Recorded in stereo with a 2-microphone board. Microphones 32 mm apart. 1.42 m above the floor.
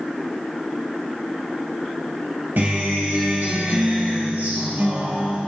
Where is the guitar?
70° right (ahead or behind), 3 m.